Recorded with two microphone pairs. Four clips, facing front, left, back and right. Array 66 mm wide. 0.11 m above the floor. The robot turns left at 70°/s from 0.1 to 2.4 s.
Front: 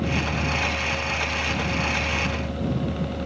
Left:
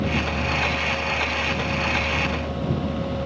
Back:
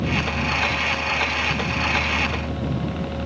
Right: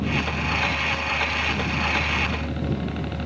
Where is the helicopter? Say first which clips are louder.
Left 1 dB, back 2 dB; 50° left; by 3.3 s 110° right.